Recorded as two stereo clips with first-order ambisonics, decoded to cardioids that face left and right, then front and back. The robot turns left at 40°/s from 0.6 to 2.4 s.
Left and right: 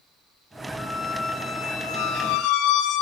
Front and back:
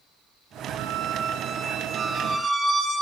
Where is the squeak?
170° left, 3.5 m; by 3.0 s 105° left, 3.5 m.